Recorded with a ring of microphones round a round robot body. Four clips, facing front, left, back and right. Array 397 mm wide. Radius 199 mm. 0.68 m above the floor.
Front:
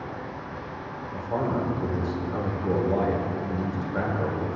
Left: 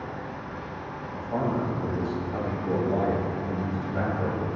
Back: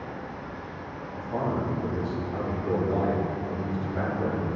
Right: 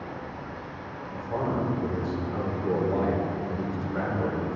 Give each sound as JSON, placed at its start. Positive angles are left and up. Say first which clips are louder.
{"t": 0.0, "sound": "running water", "louder": "left 1 dB, front 1 dB", "azimuth_deg": 35, "distance_m": 2.0}
{"t": 1.1, "sound": "a man speaking", "louder": "left 1 dB, front 2 dB", "azimuth_deg": -20, "distance_m": 1.9}